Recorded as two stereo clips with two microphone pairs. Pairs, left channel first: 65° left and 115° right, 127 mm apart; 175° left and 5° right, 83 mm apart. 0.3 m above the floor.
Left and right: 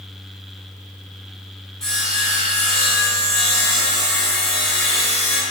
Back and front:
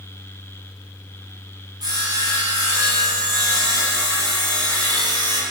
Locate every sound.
1.8 s sawing: 20° right, 1.6 m